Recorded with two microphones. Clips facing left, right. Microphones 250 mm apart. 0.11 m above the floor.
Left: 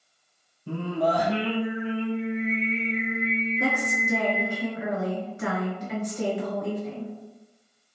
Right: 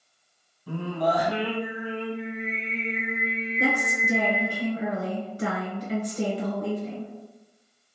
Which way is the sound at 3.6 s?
40° right (ahead or behind).